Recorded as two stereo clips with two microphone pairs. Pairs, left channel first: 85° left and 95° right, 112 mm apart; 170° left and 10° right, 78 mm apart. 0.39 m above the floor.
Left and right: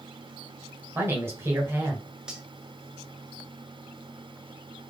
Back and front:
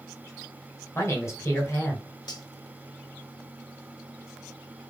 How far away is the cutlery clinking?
About 0.8 m.